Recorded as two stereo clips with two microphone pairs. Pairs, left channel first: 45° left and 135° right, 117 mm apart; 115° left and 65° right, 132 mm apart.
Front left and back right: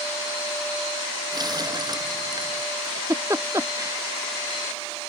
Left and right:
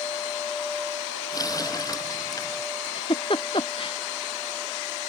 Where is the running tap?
175° left.